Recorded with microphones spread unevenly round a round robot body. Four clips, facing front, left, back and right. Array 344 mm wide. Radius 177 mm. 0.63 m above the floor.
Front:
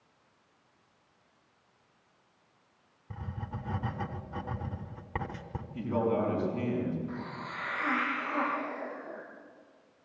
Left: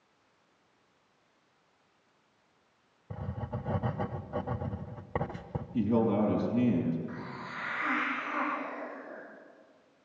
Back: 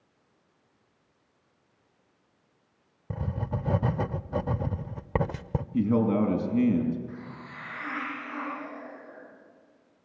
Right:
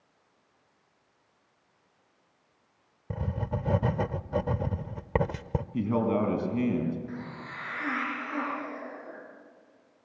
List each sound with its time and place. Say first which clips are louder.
3.1 s writing: right 6 dB, back 8 dB; 135° right, 0.8 m
5.7 s a man speaking: even, back 5 dB; 165° right, 5 m
7.1 s a hiss: right 1 dB, front 2 dB; 40° right, 10 m